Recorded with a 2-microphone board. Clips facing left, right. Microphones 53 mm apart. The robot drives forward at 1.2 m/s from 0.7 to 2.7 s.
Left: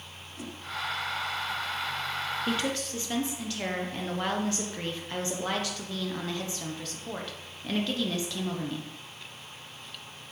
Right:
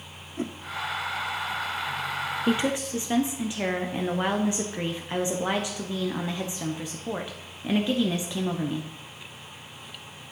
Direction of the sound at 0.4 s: 40° right (ahead or behind).